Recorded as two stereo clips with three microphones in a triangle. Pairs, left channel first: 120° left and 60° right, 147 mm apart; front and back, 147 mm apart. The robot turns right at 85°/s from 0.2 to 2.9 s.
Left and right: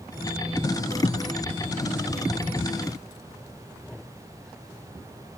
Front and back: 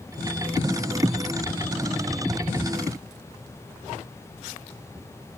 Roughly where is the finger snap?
I don't hear a finger snap.